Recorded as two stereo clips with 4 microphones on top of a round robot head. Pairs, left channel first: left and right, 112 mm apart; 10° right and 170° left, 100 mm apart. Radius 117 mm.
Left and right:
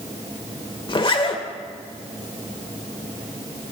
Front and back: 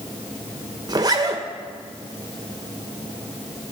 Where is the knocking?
I don't hear knocking.